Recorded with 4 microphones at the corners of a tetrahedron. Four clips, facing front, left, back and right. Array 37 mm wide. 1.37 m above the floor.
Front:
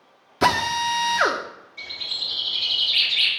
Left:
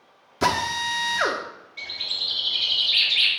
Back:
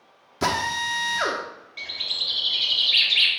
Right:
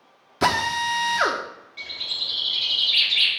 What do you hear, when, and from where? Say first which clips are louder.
0.4 s a drill: right 2 dB, front 4 dB; 40° right, 0.9 m
1.8 s a bird: even, back 1 dB; straight behind, 3 m